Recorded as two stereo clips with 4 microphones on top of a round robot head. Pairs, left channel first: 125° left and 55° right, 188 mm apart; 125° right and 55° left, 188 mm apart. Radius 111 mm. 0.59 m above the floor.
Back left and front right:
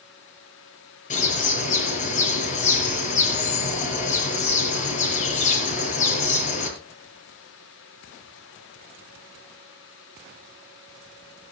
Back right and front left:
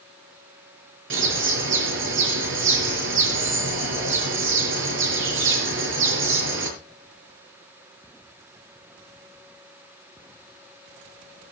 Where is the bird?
75° left, 6 m.